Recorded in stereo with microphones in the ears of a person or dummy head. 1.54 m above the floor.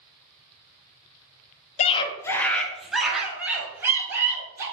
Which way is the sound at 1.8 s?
35° left (ahead or behind).